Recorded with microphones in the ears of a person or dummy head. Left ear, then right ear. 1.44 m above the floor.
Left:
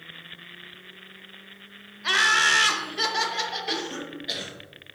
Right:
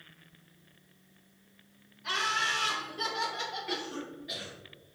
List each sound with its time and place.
2.0 s laughter: 40° left (ahead or behind), 0.5 m; by 3.9 s 55° left (ahead or behind), 1.1 m
3.7 s a cough: 40° left (ahead or behind), 1.0 m